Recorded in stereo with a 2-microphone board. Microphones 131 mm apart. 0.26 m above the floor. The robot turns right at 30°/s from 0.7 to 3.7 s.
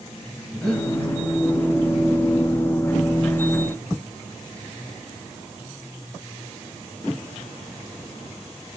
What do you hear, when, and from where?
0.5 s breathing: 5° left (ahead or behind), 1.3 m; by 0.9 s 10° left (ahead or behind), 1.3 m